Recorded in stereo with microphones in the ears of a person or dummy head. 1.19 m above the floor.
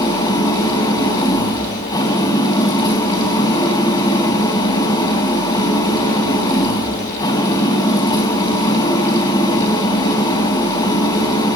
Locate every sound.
0.0 s an engine running: 25° left (ahead or behind), 4 m